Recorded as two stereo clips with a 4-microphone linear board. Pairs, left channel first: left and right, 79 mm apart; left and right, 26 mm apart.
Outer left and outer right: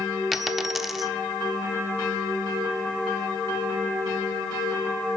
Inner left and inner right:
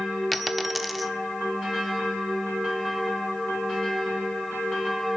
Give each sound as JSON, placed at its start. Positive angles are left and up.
{"t": 0.3, "sound": "a dropped coin", "side_deg": 0, "distance_m": 1.0}